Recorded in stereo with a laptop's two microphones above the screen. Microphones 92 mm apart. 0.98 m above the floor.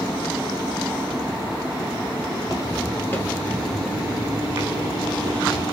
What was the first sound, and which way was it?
Footsteps, 45° left (ahead or behind).